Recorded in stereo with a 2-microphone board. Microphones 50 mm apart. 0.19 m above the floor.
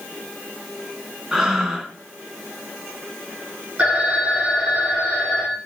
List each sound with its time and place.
1.3 s breathing: 10° right (ahead or behind), 2.5 m
3.8 s a phone ringing: 30° right (ahead or behind), 6.5 m